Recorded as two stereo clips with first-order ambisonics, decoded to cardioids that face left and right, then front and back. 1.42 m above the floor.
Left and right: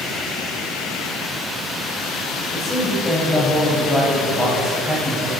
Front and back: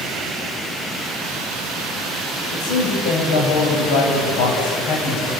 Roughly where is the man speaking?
Ahead.